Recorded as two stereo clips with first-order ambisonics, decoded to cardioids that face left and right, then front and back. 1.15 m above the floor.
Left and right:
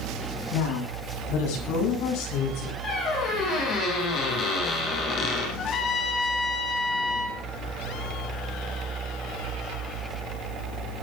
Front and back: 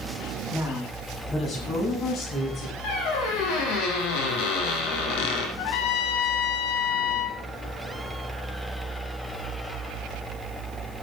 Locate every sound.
0.5 s a woman speaking: 70° left, 9.5 m; by 2.7 s 60° left, 7.5 m
2.8 s a squeak: 30° left, 7 m
5.6 s a trumpet: 30° left, 3 m